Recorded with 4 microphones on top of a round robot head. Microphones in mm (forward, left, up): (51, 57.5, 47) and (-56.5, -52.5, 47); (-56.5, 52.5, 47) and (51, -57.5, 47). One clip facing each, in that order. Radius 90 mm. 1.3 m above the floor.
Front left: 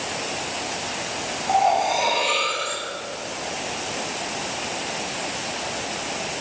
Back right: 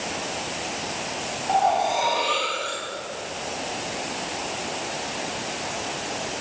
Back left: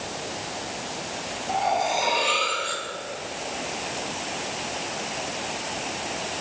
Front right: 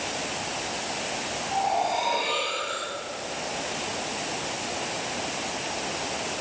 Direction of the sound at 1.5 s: 120° left.